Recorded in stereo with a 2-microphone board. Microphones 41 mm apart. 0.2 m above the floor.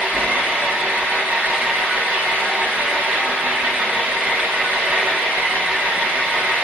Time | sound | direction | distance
0.0 | an engine running | 60° right (ahead or behind) | 1.1 m